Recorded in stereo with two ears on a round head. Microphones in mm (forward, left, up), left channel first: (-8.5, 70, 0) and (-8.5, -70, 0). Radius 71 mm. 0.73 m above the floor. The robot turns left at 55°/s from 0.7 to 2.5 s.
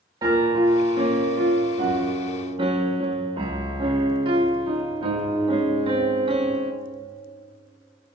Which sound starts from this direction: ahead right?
A piano, at 0.2 s.